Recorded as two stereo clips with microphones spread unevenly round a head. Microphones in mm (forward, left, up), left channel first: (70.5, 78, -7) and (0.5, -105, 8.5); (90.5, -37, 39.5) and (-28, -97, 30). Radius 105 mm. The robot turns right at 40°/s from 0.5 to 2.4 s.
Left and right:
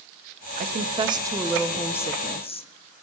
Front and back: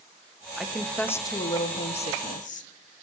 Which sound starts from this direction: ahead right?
A woman speaking, at 0.6 s.